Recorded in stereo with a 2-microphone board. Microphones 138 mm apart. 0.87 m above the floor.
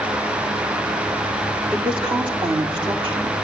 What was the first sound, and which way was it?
A woman speaking, 40° right (ahead or behind).